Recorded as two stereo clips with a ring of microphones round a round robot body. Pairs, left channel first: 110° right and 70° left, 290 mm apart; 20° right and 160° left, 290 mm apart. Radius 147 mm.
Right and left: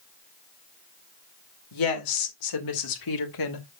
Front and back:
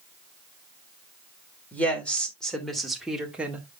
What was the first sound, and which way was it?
A woman speaking, 105° right.